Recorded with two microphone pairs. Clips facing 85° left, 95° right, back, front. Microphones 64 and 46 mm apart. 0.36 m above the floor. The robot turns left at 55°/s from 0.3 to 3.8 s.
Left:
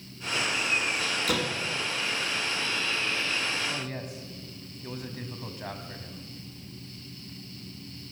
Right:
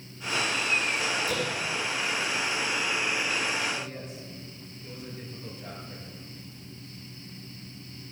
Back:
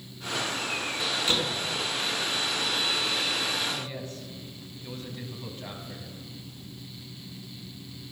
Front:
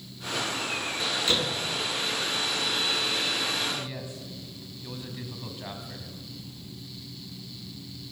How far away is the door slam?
About 3 m.